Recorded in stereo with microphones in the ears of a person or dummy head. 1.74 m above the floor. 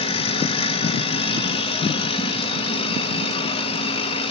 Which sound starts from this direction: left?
A machine running, at 0.0 s.